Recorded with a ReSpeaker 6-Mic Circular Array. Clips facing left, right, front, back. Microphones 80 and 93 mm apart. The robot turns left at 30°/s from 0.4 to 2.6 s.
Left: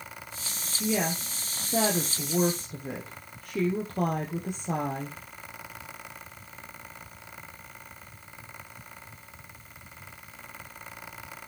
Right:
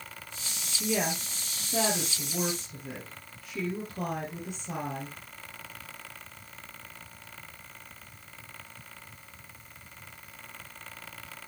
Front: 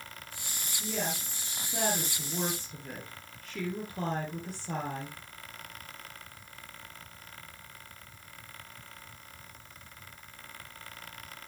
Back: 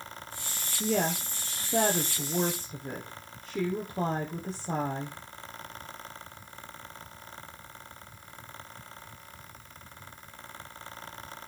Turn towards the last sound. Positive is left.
turn(degrees=120)